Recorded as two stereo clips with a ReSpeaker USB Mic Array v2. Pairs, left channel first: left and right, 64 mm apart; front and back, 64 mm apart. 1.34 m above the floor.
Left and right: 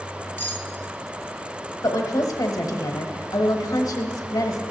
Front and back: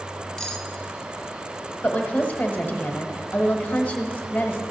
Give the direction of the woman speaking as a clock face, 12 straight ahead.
10 o'clock.